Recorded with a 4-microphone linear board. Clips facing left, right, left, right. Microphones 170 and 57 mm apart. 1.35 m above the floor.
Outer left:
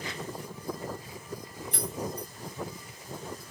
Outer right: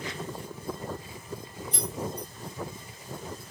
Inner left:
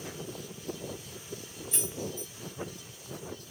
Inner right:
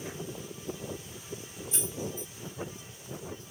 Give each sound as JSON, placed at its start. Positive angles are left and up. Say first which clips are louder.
{"t": 1.7, "sound": "keys jangling", "louder": "outer right 1 dB, even", "side_deg": 60, "distance_m": 1.7}